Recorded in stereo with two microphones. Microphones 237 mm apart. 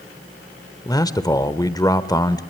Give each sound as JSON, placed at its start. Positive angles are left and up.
{"t": 0.8, "sound": "a man speaking", "side_deg": 15, "distance_m": 1.1}